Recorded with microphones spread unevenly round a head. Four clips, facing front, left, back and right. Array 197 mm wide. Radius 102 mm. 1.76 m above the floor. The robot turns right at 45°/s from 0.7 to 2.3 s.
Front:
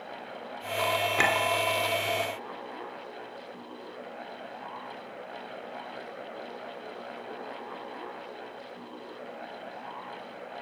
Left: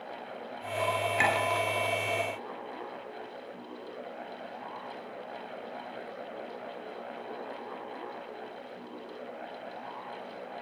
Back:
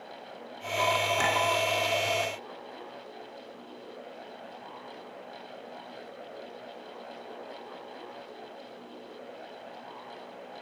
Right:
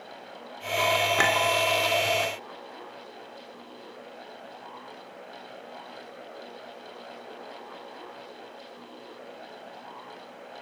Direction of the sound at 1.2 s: 60° right.